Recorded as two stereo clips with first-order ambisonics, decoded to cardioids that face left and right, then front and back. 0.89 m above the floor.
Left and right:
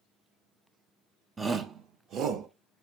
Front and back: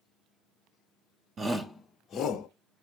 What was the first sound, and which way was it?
A shout, 155° right.